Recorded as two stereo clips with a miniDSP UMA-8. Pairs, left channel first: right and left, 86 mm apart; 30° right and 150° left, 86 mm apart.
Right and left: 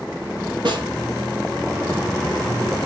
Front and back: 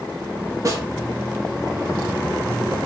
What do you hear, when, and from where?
0.7 s a snare drum: 100° left, 3 m